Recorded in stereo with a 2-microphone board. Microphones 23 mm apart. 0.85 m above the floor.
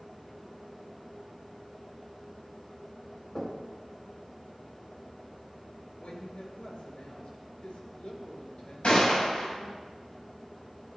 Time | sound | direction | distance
3.4 | knocking | 45° left (ahead or behind) | 3.5 m
6.0 | a woman speaking | 75° left (ahead or behind) | 3 m
8.8 | a gunshot | 65° left (ahead or behind) | 4.5 m